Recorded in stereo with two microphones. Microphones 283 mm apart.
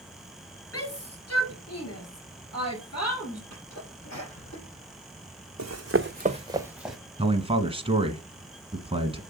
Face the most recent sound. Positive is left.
turn(degrees=-20)  # may be behind; listen again after turning